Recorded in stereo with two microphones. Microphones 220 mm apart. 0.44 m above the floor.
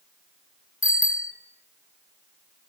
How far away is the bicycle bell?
About 6.5 m.